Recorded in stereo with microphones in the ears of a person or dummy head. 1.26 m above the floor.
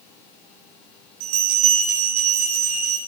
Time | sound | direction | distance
1.2 | a bell | 90° right | 6.5 m